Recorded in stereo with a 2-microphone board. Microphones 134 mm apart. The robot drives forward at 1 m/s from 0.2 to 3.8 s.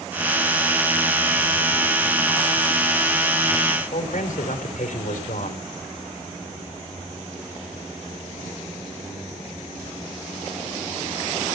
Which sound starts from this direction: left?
A man speaking, at 3.9 s.